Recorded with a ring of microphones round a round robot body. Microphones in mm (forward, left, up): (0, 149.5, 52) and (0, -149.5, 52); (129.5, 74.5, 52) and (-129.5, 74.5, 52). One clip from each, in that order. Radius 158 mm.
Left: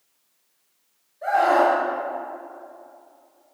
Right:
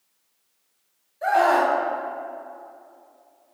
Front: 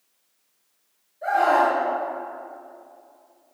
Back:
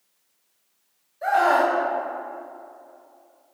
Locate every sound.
1.2 s a scream: 135° right, 3 m